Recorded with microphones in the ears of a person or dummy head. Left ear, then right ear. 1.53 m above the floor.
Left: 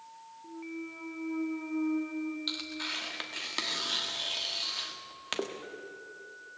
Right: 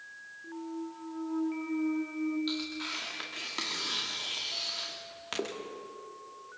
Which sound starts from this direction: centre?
A clunk, at 0.4 s.